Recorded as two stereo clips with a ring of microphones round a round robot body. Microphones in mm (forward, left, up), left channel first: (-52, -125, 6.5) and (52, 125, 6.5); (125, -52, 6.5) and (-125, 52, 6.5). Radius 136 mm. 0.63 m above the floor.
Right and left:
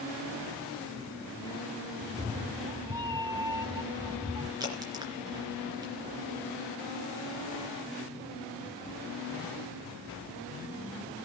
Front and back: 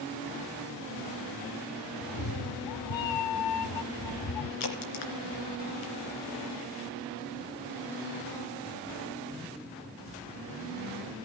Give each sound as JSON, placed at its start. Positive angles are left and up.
{"t": 2.0, "sound": "a cat meowing", "azimuth_deg": -10, "distance_m": 1.0}
{"t": 4.6, "sound": "a crack", "azimuth_deg": -10, "distance_m": 3.0}